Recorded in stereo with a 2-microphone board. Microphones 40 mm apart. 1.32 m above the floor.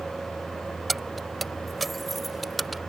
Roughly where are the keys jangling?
Centre.